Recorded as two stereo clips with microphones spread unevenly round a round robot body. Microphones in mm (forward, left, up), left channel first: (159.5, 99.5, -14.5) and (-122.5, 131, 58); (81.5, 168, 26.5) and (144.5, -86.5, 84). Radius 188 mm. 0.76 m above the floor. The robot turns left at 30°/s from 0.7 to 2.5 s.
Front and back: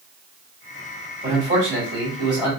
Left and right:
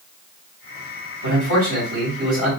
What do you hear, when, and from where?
1.2 s a man speaking: 110° right, 2.5 m; by 2.5 s 150° right, 2.5 m